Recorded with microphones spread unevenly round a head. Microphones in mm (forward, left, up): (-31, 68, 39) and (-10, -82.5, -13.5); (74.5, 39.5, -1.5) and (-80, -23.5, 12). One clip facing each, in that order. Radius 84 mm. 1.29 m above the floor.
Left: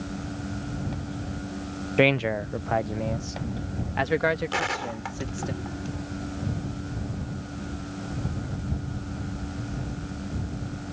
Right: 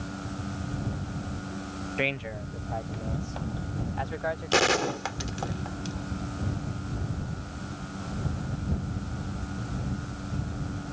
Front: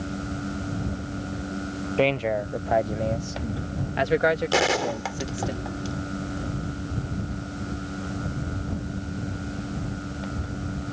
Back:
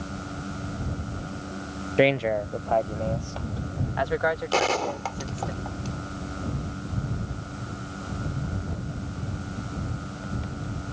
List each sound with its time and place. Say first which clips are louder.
2.0 s a man speaking: left 12 dB, back 2 dB; 130° left; by 5.5 s 75° left
4.5 s a gunshot: right 5 dB, front 1 dB; 55° right